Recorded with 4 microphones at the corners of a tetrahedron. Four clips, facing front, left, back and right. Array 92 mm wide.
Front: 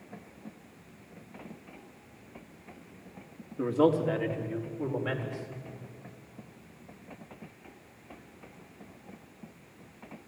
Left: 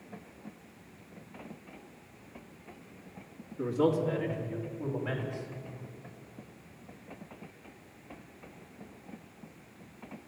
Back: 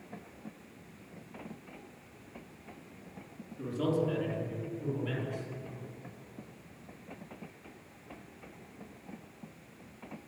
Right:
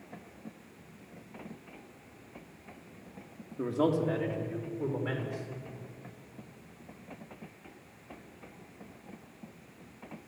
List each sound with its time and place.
3.6 s a man speaking: 25° right, 2.5 m; by 5.5 s 30° right, 5 m